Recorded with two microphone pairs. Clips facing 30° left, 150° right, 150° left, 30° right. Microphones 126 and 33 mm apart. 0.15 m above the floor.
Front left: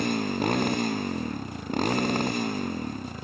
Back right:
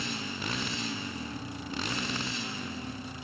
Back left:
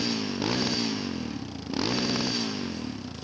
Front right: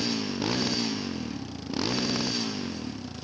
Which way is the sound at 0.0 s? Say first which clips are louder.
Front left 11 dB, even; 70° left.